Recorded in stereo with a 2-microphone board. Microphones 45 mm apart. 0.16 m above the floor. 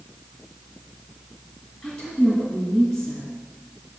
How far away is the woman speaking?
About 2.0 m.